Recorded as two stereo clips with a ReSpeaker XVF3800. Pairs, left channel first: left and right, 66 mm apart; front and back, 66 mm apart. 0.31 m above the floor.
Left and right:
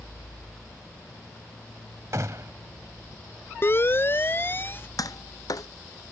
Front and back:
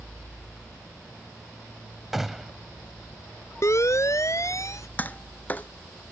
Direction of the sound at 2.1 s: 95° right.